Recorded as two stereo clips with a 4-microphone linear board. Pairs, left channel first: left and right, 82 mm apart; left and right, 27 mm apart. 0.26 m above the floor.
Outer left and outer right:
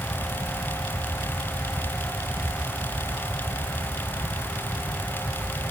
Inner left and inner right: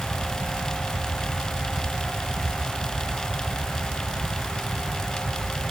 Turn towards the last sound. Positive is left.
No sound to turn to.